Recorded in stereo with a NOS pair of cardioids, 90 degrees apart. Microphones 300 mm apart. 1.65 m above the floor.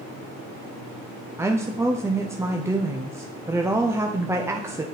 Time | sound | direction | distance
1.4 | a woman speaking | 10° right | 0.6 m